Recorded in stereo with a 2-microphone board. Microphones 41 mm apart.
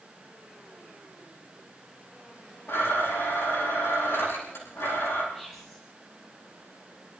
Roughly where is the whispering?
Centre.